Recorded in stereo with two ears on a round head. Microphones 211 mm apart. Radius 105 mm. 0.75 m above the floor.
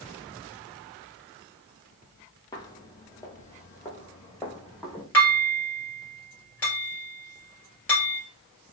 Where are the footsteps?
15° left (ahead or behind), 0.8 m; by 5.0 s 10° left (ahead or behind), 1.8 m.